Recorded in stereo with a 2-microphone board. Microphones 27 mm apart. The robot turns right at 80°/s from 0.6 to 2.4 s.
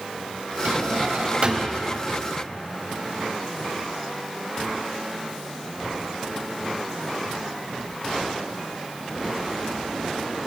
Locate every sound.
0.7 s a drawer: 110° right, 3 m; by 1.8 s 20° right, 3 m